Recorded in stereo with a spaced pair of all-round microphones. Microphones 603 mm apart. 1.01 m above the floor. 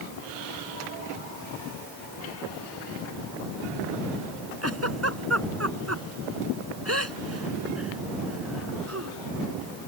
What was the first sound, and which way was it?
A giggle, 25° right (ahead or behind).